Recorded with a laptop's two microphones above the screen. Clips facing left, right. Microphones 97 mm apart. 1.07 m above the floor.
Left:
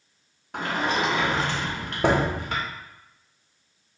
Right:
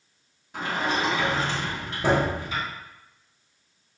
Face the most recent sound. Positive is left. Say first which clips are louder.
# left 1 dB
turn(degrees=70)  # may be behind; listen again after turning